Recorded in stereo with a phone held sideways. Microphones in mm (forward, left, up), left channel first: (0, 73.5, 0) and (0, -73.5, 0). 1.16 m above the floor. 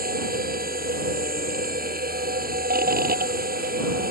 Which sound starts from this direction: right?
A machine running, at 0.0 s.